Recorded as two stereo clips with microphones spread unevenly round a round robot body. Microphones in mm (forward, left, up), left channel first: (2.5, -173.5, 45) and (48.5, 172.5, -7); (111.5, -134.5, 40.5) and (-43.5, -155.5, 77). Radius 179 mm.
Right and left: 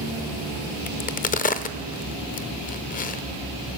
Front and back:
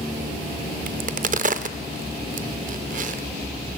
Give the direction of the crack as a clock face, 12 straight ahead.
5 o'clock.